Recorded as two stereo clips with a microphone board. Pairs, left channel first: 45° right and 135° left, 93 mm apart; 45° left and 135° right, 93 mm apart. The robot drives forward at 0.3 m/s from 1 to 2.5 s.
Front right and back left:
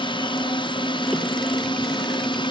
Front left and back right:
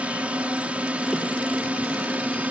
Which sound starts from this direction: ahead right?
A drone, at 0.0 s.